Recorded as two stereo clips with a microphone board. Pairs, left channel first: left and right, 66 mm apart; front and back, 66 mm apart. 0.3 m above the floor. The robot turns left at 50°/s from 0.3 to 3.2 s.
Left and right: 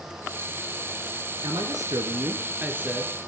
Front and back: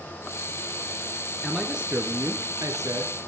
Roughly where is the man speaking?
Right.